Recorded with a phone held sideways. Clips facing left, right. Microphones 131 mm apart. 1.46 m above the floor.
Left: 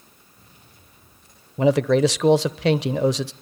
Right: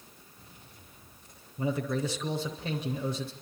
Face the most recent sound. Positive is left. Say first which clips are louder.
# left 13 dB
turn(degrees=70)  # may be behind; listen again after turning